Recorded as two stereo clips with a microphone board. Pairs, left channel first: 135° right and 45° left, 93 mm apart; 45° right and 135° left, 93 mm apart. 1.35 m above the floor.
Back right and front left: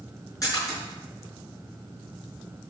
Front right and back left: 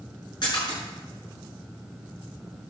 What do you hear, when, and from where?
0.4 s a splash: 85° right, 6 m